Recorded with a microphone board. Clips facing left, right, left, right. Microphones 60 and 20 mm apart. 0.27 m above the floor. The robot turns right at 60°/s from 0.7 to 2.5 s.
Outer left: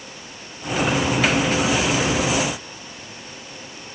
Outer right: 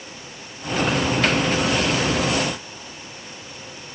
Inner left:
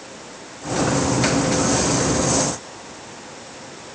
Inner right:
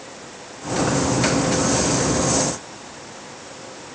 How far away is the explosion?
I don't hear an explosion.